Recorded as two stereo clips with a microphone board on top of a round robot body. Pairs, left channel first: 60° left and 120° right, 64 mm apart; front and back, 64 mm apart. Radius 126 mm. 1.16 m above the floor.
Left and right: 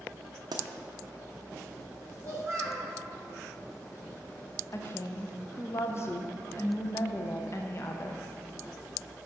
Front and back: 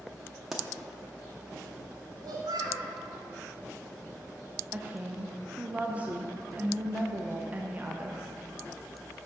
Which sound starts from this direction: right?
A pop, at 0.5 s.